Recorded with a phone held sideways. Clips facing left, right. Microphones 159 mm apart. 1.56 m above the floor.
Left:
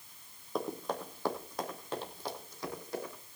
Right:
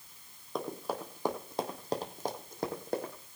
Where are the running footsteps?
Centre (ahead or behind), 2.5 m; by 3.1 s 60° right (ahead or behind), 3.5 m.